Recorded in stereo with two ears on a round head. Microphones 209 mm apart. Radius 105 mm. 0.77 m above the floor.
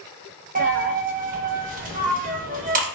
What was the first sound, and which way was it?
A dropped coin, 35° right (ahead or behind).